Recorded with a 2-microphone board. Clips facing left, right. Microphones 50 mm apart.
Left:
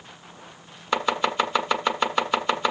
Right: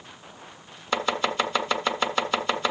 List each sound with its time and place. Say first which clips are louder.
0.9 s chopping: left 2 dB; 5° left (ahead or behind), 1.7 m